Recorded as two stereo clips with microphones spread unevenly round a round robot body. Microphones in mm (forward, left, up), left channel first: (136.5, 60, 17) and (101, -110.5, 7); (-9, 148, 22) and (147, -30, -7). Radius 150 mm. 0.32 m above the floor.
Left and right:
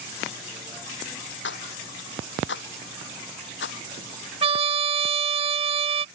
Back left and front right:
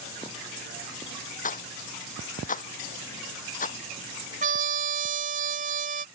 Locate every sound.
1.4 s a rattle: 75° left
4.4 s a trumpet: 70° right